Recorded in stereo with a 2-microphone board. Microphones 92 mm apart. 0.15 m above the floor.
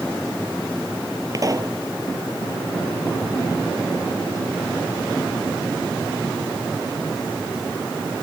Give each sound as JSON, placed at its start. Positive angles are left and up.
{"t": 1.3, "sound": "a pop", "side_deg": -40}